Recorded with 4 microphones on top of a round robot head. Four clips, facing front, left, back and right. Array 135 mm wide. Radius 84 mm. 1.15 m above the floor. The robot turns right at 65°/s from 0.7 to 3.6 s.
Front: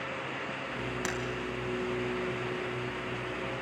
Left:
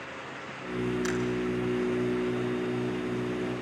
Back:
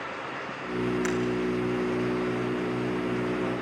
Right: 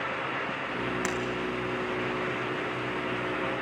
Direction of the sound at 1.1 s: 60° right.